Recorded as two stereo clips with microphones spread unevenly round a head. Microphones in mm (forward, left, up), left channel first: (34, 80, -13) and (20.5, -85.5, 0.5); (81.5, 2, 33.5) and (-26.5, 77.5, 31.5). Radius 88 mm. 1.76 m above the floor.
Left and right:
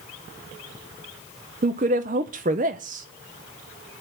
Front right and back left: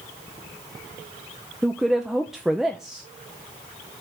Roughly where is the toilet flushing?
No toilet flushing in this recording.